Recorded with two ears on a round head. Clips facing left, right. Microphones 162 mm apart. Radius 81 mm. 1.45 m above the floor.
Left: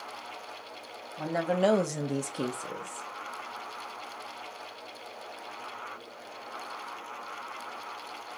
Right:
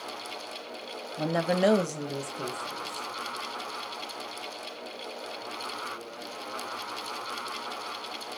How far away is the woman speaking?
About 1.0 m.